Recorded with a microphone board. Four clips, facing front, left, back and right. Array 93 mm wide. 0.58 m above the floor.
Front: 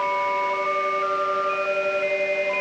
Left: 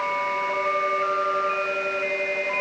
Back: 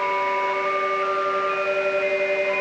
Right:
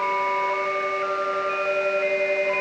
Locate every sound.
Only background noise.